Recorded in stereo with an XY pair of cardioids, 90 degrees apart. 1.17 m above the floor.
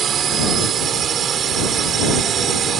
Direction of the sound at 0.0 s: 65° right.